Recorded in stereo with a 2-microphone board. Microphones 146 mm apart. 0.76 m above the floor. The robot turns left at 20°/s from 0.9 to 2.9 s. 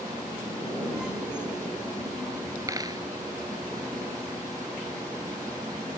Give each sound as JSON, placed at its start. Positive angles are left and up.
{"t": 2.7, "sound": "a dropped coin", "side_deg": -20}